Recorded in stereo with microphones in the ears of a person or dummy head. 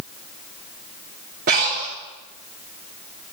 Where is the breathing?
40° right (ahead or behind), 1.6 m.